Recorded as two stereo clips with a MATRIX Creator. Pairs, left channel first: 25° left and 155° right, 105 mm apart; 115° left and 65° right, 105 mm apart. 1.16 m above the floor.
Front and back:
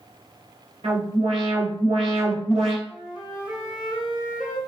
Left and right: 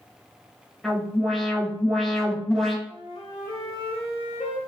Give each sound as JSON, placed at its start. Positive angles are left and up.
{"t": 0.8, "sound": "an alarm", "azimuth_deg": -160, "distance_m": 3.5}
{"t": 2.9, "sound": "a flute", "azimuth_deg": 125, "distance_m": 2.0}